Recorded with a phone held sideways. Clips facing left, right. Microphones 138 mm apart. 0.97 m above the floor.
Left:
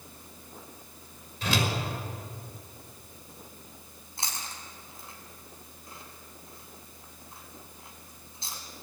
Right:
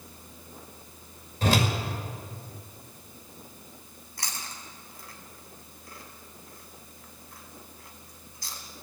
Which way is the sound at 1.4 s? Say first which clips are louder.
Right 5 dB; 45° right (ahead or behind).